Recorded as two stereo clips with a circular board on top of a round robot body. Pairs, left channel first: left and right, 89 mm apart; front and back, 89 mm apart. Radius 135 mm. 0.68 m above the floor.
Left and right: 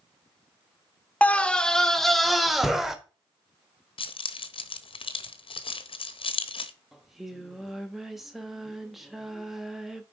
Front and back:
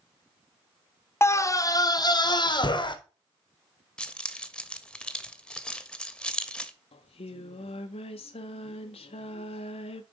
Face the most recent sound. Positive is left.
turn(degrees=0)